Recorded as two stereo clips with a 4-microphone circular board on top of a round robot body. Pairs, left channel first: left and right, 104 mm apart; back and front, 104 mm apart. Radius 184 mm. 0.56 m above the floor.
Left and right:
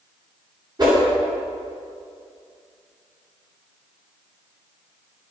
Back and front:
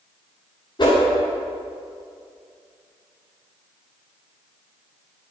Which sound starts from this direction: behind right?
A whoosh, at 0.8 s.